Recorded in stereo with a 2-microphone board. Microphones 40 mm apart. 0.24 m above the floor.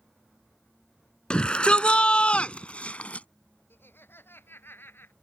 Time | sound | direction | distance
1.3 | a shout | 25° left (ahead or behind) | ?
3.7 | laughter | 65° left (ahead or behind) | ?